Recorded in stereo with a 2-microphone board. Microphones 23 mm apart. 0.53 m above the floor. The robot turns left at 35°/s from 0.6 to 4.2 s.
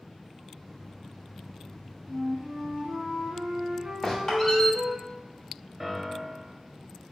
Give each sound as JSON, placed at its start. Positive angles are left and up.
{"t": 2.1, "sound": "a flute", "azimuth_deg": -45, "distance_m": 0.9}
{"t": 4.0, "sound": "a squeak", "side_deg": 15, "distance_m": 0.9}
{"t": 5.8, "sound": "a piano", "side_deg": -15, "distance_m": 0.5}